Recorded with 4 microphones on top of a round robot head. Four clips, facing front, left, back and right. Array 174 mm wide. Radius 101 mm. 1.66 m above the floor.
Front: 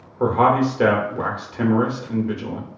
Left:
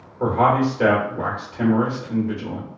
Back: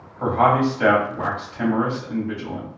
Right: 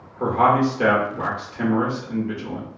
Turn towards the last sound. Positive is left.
turn(degrees=-5)